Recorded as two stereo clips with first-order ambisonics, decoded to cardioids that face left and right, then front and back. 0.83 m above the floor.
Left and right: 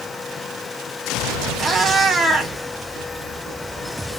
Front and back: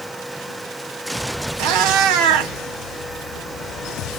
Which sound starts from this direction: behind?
A cat meowing, at 1.6 s.